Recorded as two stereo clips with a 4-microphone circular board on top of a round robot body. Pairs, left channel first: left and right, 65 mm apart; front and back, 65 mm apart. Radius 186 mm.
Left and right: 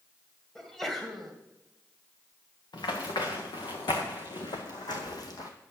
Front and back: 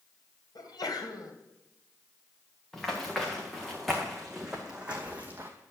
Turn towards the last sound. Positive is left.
turn(degrees=120)